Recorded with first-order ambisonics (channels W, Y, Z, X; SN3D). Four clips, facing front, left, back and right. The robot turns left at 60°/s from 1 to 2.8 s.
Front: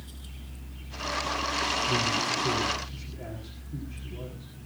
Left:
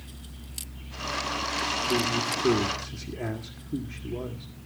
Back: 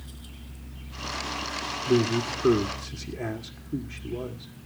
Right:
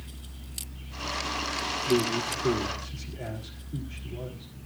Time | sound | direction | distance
1.9 | a man speaking | 165° right | 1.7 m